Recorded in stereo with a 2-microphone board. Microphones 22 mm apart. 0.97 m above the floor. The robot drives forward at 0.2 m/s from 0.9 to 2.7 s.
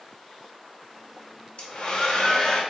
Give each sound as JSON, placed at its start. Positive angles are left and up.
{"t": 1.6, "sound": "a hair dryer", "side_deg": 50, "distance_m": 0.8}